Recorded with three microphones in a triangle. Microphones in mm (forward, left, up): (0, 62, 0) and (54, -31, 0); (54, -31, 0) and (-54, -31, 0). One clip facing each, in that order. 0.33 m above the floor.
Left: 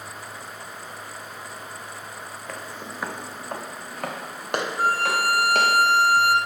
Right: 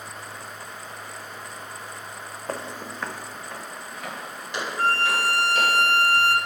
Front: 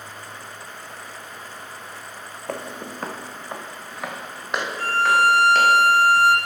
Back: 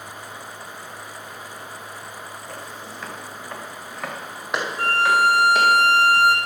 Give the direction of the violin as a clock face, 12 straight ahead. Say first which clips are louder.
Right 1 dB, even; 5 o'clock.